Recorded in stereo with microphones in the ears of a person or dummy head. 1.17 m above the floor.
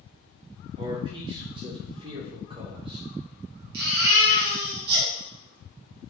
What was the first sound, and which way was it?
A man speaking, 20° right (ahead or behind).